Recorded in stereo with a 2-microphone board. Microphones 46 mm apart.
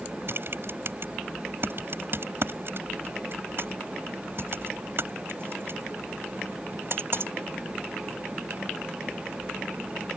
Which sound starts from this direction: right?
Typing on a keyboard, at 0.3 s.